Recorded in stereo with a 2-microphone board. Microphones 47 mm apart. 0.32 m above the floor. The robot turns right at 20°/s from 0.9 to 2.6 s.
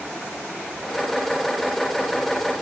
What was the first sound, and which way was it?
Only background noise.